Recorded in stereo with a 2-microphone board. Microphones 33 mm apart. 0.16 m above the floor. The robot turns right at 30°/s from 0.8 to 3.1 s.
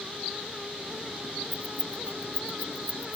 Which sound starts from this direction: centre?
Keys jangling, at 1.5 s.